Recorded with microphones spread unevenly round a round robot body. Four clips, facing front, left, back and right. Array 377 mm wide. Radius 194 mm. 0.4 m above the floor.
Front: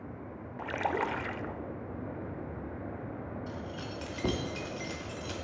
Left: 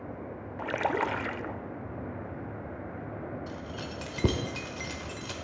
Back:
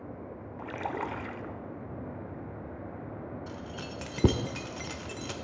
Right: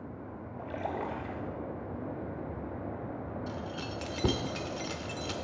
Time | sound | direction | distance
0.6 | a splash | 70° left | 0.7 m
3.5 | keys jangling | 160° left | 0.8 m